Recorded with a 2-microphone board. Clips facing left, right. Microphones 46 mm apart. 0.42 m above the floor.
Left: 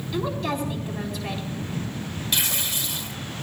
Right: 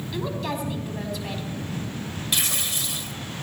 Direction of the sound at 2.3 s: 5° right (ahead or behind).